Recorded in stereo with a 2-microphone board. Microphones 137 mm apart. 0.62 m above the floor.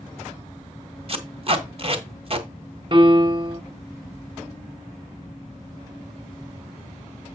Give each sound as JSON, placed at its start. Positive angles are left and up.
{"t": 1.1, "sound": "tape being pulled", "side_deg": -45, "distance_m": 1.5}
{"t": 2.9, "sound": "a piano", "side_deg": -35, "distance_m": 1.4}